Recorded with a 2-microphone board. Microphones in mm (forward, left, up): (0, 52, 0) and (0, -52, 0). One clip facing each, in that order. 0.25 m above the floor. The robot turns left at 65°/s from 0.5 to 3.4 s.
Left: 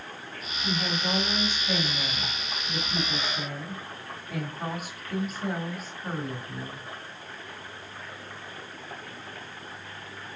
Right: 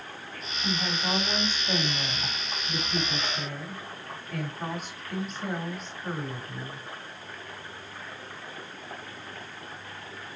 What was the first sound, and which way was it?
A woman speaking, 5° right (ahead or behind).